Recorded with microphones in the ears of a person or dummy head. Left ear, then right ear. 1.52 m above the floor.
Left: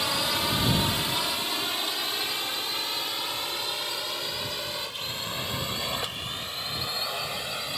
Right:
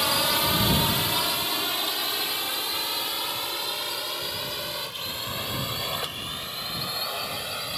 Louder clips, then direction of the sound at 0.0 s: Right 3 dB; 5° right (ahead or behind).